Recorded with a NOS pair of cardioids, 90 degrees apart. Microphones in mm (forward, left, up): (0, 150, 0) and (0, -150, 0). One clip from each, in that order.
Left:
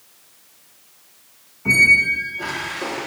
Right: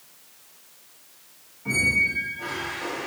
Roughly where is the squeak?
Ahead left.